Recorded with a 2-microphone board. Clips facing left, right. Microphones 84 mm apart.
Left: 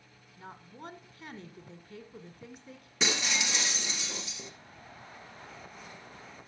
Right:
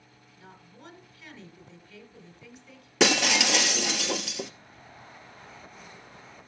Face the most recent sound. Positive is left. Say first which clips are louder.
# right 9 dB
turn(degrees=-85)